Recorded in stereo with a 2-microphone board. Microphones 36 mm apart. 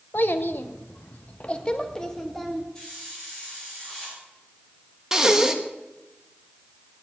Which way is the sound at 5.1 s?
15° right (ahead or behind).